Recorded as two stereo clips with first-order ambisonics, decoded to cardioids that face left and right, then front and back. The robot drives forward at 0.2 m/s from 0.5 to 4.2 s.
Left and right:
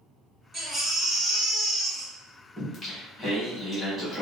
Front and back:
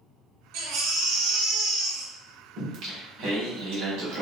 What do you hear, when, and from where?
0.5 s a baby crying: 165° right, 0.8 m; by 2.1 s 170° right, 1.1 m
2.6 s singing: 155° left, 1.0 m; by 4.2 s 160° left, 1.2 m